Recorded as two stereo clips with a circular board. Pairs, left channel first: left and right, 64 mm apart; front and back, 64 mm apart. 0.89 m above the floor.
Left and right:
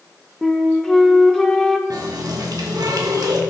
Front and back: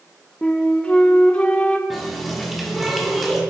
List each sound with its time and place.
0.4 s a flute: 15° left, 0.7 m
1.9 s a running tap: 90° right, 1.3 m